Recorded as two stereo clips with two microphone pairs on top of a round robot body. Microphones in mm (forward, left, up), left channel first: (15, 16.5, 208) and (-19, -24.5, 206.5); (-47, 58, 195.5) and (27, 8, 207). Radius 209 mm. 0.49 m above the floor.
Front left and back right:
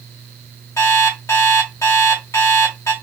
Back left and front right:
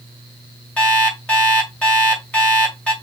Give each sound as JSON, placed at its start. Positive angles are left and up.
{"t": 0.8, "sound": "an alarm clock", "azimuth_deg": 70, "distance_m": 2.0}